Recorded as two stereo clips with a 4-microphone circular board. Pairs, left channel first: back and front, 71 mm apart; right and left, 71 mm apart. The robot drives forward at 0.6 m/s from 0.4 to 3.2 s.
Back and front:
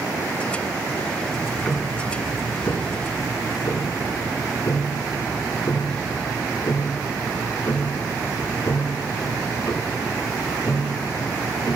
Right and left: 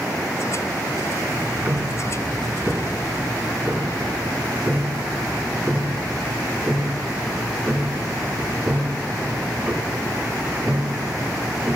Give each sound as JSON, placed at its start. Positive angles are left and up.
{"t": 1.3, "sound": "ticking", "azimuth_deg": 75, "distance_m": 0.8}